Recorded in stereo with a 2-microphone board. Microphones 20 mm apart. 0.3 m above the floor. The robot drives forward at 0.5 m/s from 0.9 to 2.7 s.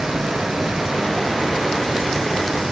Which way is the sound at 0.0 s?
50° right (ahead or behind).